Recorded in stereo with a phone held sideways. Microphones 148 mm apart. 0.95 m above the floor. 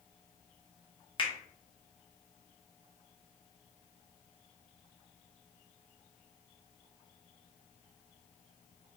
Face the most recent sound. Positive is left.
turn(degrees=35)  # may be behind; listen again after turning